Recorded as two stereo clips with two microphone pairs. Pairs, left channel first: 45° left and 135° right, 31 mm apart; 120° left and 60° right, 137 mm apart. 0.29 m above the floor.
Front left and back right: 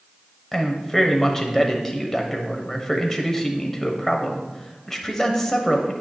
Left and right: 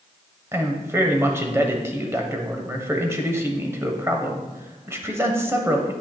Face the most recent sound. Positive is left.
turn(degrees=-15)